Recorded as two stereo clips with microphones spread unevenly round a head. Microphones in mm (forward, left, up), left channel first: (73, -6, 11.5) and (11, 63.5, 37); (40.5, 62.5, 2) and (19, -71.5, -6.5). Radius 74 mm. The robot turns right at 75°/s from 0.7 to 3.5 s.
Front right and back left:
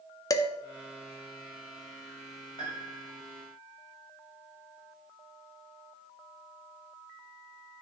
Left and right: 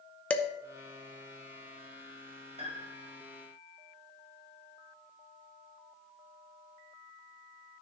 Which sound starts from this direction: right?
A piano, at 2.6 s.